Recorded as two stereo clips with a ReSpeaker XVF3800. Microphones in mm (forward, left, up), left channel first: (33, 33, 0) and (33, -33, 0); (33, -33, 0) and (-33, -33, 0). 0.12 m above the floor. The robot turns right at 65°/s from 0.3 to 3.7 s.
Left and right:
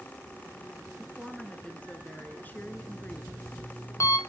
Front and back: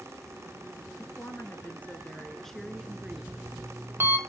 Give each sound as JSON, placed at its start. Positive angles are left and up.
{"t": 1.0, "sound": "a woman speaking", "azimuth_deg": -15, "distance_m": 1.2}
{"t": 2.6, "sound": "an alarm clock", "azimuth_deg": 55, "distance_m": 1.5}